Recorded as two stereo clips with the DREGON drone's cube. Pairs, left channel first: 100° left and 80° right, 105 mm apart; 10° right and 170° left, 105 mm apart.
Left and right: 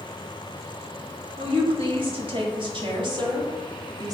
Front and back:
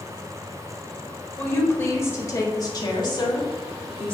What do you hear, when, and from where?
1.4 s a woman speaking: 85° right, 1.8 m; by 4.1 s 30° right, 1.9 m